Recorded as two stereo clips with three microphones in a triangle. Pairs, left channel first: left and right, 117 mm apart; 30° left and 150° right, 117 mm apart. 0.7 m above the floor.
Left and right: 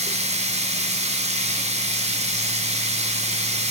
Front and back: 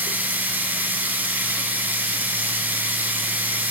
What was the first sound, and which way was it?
Running water, 75° right.